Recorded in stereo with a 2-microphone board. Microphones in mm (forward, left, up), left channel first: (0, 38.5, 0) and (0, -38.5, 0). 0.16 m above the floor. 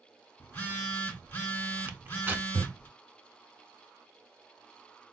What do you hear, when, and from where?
0.4 s a phone buzzing: 20° left (ahead or behind), 1.6 m
1.9 s tearing paper: 30° right (ahead or behind), 0.6 m